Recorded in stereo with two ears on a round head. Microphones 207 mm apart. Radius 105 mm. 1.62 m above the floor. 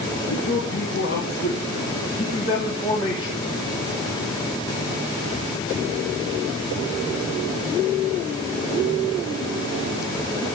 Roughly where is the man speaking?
Left.